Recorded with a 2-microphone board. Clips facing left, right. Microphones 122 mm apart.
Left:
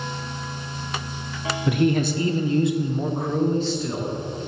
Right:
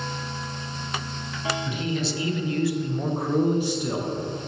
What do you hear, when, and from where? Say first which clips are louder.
1.7 s a man speaking: left 8 dB; 65° left (ahead or behind), 0.7 m; by 4.1 s 20° right (ahead or behind), 1.1 m